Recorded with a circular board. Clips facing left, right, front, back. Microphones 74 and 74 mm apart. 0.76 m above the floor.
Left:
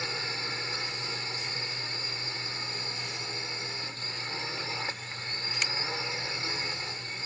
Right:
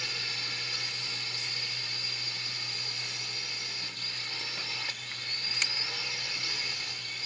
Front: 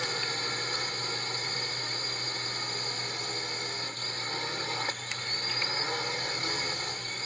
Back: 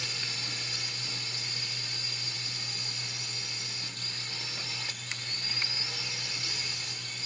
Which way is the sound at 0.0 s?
35° left.